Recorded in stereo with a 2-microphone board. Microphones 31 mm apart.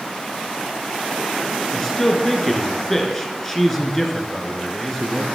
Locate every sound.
1.7 s a man speaking: 10° left (ahead or behind), 2.5 m